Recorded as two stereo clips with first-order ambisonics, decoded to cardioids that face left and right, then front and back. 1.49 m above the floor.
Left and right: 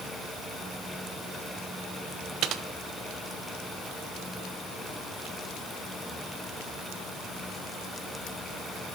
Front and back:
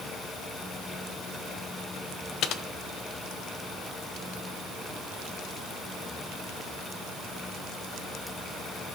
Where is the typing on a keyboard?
45° right, 0.6 m.